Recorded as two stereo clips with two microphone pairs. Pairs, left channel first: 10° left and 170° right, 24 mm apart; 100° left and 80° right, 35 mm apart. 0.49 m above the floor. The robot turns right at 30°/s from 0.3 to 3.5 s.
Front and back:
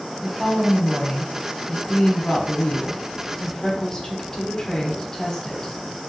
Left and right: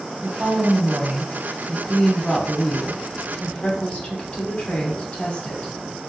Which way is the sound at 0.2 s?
35° right.